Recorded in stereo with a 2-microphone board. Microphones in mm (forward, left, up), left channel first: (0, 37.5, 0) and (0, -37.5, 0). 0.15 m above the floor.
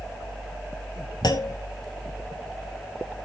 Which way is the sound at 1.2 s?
65° left (ahead or behind).